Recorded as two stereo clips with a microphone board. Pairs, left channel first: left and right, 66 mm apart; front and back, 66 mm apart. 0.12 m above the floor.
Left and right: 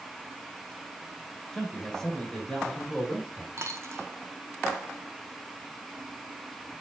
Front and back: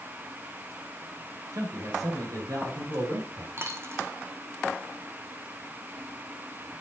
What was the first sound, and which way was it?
A man speaking, 170° left.